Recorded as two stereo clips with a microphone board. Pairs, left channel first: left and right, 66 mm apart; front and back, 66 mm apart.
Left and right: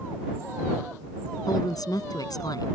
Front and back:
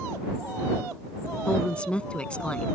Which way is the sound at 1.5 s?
75° left.